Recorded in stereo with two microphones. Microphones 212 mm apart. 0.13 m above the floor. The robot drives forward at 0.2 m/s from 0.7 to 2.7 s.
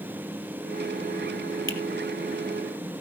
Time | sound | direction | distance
1.7 | a finger snap | 65° left (ahead or behind) | 2 m